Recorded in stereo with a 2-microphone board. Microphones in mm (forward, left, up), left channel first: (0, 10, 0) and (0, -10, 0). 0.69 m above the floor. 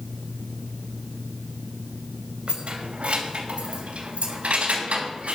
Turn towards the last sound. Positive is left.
turn(degrees=-85)